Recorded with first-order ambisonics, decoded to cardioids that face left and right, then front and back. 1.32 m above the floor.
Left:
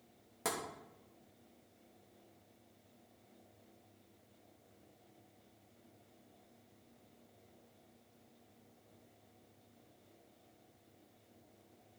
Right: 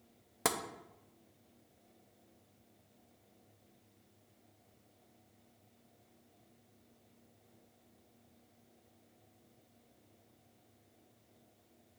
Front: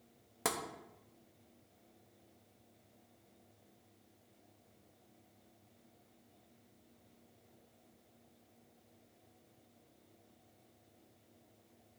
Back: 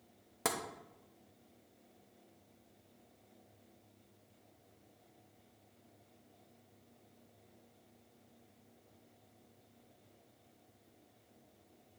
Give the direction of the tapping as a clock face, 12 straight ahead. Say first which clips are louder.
Right 5 dB, back 1 dB; 3 o'clock.